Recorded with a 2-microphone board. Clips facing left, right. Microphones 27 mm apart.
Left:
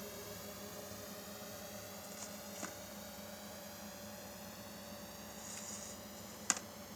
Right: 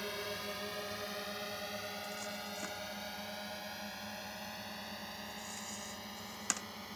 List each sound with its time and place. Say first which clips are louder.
0.0 s a drone: right 8 dB; 45° right (ahead or behind); by 7.0 s 35° right (ahead or behind)